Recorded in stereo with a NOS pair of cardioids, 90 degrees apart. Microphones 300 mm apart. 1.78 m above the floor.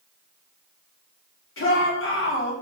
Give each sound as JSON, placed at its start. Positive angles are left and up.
{"t": 1.6, "sound": "a shout", "azimuth_deg": 40, "distance_m": 4.5}